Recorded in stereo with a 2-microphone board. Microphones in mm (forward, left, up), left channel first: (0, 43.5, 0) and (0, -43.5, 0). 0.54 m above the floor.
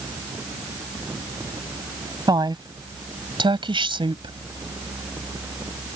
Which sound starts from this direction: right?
A woman speaking, at 2.3 s.